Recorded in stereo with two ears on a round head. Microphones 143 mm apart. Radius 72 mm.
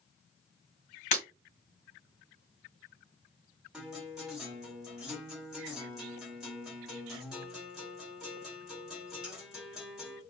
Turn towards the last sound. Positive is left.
turn(degrees=-5)  # may be behind; listen again after turning